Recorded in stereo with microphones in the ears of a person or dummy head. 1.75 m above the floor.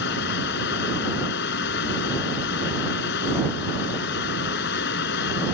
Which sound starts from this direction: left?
A fan, at 0.0 s.